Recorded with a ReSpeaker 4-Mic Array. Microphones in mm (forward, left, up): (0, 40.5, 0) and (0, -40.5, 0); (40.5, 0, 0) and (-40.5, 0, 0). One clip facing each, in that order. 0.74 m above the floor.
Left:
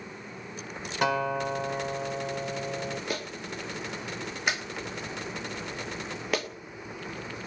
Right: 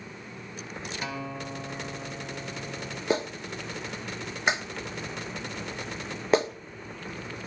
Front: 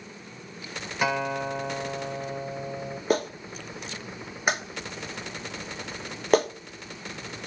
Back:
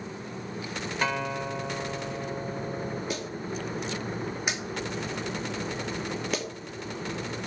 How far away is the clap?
About 1.1 m.